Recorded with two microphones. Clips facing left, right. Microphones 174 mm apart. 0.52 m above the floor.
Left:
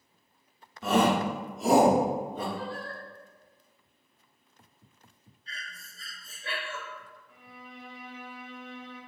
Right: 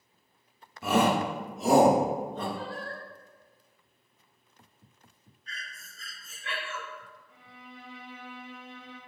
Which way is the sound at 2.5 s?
40° right (ahead or behind).